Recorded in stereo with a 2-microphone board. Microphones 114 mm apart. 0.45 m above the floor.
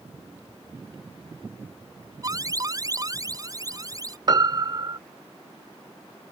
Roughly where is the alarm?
Right.